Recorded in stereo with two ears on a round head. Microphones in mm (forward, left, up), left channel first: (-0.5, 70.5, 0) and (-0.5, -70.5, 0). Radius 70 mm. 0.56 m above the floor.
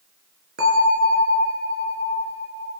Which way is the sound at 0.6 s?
70° right (ahead or behind).